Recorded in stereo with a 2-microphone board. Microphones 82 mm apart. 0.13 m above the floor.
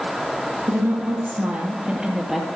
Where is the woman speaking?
35° right (ahead or behind), 2 m; by 2.5 s 5° left (ahead or behind), 2 m.